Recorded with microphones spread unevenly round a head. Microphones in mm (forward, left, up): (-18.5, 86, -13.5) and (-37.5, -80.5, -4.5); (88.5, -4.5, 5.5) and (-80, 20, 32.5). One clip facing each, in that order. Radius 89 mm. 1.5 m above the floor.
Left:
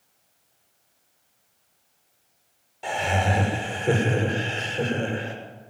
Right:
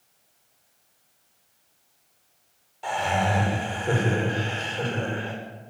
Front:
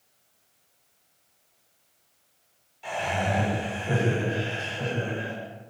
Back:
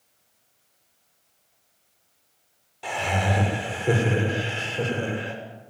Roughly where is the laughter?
Behind left.